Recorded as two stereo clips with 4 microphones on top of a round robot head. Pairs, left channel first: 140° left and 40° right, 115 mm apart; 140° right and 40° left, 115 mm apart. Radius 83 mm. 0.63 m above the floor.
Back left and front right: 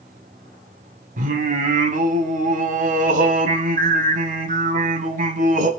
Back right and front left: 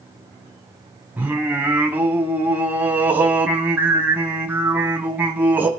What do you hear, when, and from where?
1.2 s singing: 35° right, 2.5 m